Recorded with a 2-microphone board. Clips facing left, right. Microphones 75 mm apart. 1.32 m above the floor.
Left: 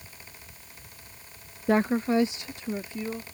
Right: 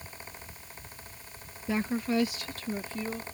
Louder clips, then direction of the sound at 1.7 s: Left 6 dB; 55° left (ahead or behind).